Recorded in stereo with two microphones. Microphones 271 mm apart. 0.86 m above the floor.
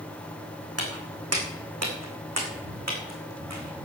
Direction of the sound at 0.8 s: 60° right (ahead or behind).